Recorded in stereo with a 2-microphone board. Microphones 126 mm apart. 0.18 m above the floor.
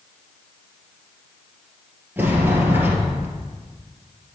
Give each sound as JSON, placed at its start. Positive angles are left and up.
{"t": 2.2, "sound": "a sliding door", "side_deg": -15, "distance_m": 2.0}